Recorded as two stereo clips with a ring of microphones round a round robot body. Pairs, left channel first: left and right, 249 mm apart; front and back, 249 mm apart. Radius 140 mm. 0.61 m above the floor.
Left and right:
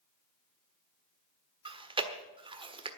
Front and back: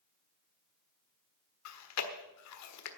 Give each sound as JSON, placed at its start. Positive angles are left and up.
{"t": 1.6, "sound": "chewing", "azimuth_deg": -20, "distance_m": 1.4}